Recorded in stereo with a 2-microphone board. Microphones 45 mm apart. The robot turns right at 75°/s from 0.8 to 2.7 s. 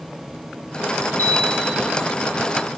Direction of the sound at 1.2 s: 95° left.